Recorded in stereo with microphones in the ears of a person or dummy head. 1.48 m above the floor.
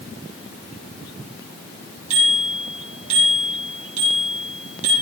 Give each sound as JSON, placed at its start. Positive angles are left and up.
{"t": 2.1, "sound": "a bicycle bell", "side_deg": -45, "distance_m": 8.5}